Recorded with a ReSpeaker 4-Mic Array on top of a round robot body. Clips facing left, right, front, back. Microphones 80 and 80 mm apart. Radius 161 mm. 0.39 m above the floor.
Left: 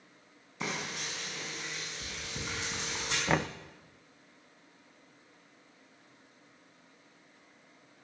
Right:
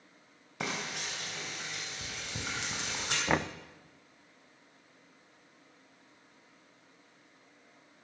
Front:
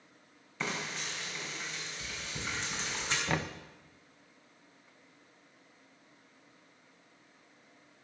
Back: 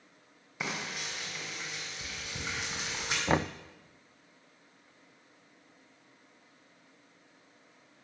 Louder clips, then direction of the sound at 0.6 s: Even, even; 100° right.